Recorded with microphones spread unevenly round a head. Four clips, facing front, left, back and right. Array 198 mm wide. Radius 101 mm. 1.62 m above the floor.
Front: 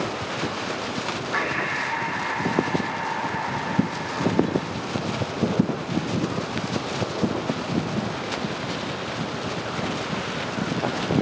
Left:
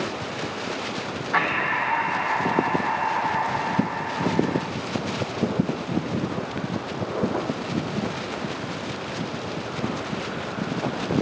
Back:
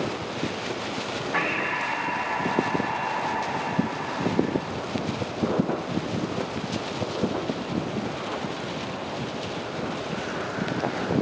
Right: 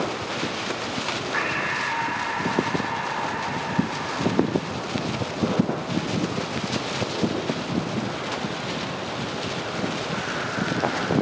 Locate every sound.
1.3 s breathing: 130° left, 1.2 m